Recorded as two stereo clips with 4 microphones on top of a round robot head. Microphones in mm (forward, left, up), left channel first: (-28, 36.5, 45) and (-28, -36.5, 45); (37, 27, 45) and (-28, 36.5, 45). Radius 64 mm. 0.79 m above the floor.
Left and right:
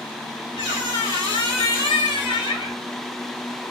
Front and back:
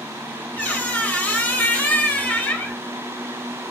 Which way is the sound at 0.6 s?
55° left.